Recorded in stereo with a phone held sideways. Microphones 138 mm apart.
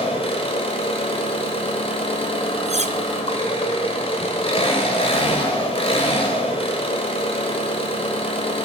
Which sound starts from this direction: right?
Cutlery clinking, at 2.7 s.